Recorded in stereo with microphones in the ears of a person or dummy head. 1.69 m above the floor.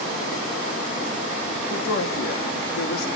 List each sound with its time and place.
1.7 s a woman speaking: 55° left (ahead or behind), 2.5 m